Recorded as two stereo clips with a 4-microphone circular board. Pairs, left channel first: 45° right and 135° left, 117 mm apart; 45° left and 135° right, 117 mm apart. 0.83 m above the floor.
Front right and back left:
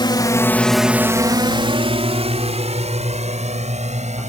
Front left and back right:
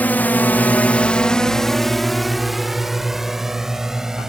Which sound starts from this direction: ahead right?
A drone, at 0.0 s.